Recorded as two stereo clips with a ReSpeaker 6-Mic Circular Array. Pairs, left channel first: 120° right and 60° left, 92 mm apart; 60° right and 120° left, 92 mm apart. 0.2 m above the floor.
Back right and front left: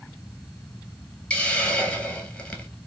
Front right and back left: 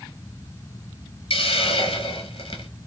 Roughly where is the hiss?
Ahead right.